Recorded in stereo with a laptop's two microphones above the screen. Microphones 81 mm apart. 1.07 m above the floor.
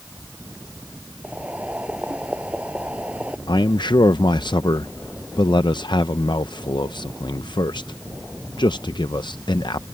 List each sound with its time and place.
1.2 s boiling: 15° right (ahead or behind)
3.5 s a man speaking: 70° left (ahead or behind)